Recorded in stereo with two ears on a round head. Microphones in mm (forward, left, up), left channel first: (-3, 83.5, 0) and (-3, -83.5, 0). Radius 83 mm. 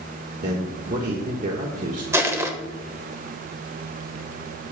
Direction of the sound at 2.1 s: 15° right (ahead or behind).